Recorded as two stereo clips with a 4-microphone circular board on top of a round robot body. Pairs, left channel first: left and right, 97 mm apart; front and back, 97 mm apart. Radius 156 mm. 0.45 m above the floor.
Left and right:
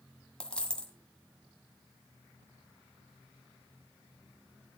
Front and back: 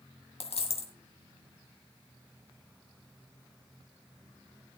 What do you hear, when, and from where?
0.4 s a dropped coin: 10° left, 1.8 m